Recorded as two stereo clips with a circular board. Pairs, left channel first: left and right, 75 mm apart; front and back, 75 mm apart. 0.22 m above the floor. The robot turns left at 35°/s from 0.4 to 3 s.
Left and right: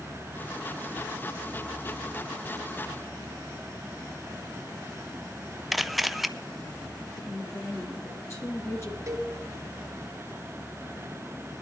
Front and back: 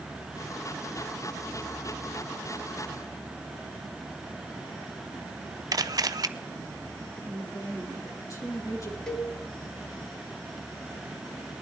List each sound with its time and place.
5.7 s a camera shutter: 175° right, 0.5 m
7.2 s a woman speaking: 40° left, 5.5 m
9.1 s a cowbell: 80° right, 1.6 m